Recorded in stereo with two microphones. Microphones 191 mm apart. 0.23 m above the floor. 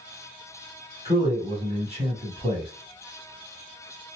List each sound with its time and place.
1.1 s a man speaking: 35° right (ahead or behind), 1.7 m